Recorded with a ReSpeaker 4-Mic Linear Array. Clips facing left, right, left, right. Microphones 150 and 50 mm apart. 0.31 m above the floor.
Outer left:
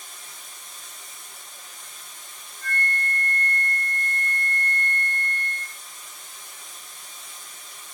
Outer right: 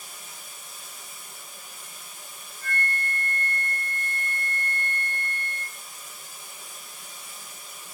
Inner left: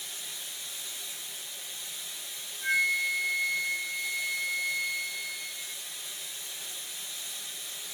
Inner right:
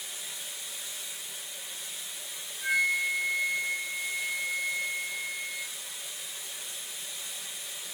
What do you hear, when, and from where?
0.0 s running water: 10° right (ahead or behind), 3 m
2.6 s a flute: 15° right (ahead or behind), 2.5 m